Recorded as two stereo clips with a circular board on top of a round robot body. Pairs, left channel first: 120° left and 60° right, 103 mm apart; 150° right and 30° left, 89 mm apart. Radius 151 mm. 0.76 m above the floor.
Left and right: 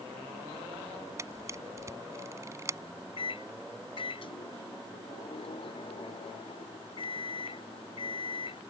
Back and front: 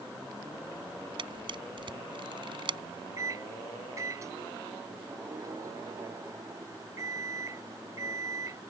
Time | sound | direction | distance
1.2 | a camera shutter | 5° left | ?
3.2 | a microwave | 85° left | ?